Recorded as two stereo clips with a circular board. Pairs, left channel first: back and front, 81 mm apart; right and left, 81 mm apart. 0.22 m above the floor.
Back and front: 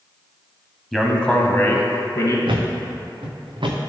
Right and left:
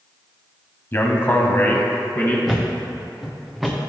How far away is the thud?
About 1.4 m.